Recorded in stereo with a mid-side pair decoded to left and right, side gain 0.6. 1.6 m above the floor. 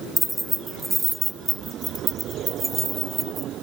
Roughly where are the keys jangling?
Ahead.